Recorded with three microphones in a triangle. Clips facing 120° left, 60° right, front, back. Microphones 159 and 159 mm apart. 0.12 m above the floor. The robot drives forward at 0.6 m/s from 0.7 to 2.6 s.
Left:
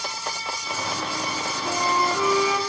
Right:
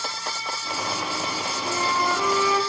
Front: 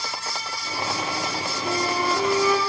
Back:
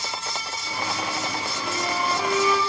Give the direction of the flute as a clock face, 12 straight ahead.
11 o'clock.